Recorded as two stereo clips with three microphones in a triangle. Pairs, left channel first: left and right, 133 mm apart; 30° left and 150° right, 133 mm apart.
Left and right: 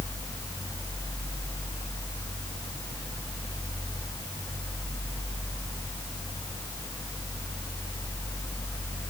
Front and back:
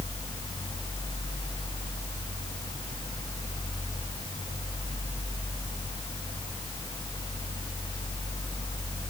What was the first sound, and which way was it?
Only background noise.